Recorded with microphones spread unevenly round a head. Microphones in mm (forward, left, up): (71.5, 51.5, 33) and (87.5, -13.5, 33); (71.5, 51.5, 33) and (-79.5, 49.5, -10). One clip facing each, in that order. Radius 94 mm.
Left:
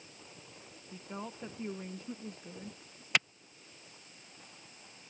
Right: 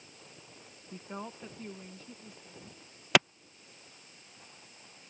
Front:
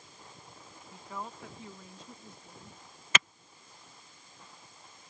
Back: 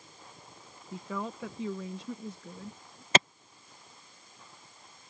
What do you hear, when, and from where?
0.9 s a woman speaking: 150° right; by 3.0 s 160° left
3.1 s a clap: 105° right